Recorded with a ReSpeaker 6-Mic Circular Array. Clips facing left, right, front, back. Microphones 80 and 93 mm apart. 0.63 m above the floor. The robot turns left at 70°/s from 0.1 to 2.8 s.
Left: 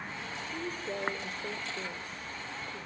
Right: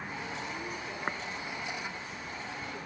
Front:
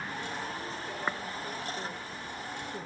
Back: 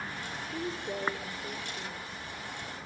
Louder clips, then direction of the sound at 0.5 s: Left 2 dB, back 3 dB; 155° left.